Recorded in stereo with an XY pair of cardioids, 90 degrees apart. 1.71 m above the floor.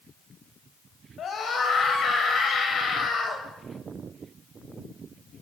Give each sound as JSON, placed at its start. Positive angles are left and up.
{"t": 1.2, "sound": "a scream", "azimuth_deg": 65, "distance_m": 7.0}